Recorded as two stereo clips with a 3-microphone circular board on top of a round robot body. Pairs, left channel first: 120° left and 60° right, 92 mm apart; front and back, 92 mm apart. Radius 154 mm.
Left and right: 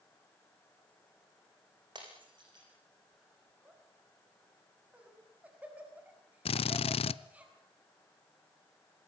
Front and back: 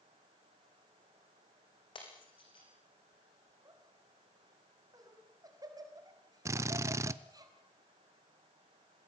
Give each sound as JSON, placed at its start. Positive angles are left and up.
{"t": 1.9, "sound": "breaking glass", "azimuth_deg": -25, "distance_m": 6.5}
{"t": 3.6, "sound": "laughter", "azimuth_deg": -135, "distance_m": 5.5}
{"t": 6.5, "sound": "a drill", "azimuth_deg": 120, "distance_m": 0.5}